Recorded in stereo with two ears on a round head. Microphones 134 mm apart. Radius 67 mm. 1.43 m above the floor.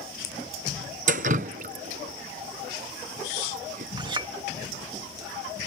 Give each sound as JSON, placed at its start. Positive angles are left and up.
{"t": 1.1, "sound": "dripping", "side_deg": -60}
{"t": 4.0, "sound": "a clink", "side_deg": -35}